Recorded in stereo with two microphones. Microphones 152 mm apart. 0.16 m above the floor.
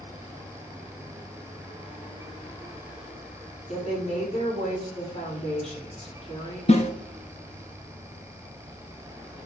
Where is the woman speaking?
45° left (ahead or behind), 5 m.